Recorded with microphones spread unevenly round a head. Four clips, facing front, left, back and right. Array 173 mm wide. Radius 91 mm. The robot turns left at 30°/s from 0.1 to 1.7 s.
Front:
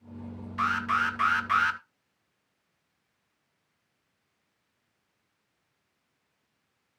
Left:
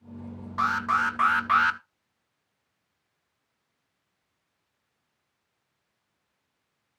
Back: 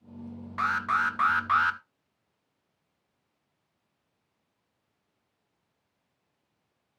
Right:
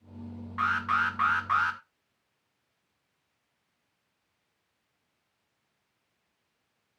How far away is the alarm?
About 1.0 m.